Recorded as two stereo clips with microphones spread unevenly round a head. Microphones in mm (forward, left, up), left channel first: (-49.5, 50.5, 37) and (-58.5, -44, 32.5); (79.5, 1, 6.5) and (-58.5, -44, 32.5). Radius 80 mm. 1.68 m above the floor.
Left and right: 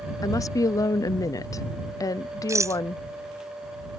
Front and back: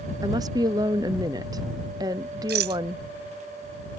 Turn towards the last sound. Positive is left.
turn(degrees=-155)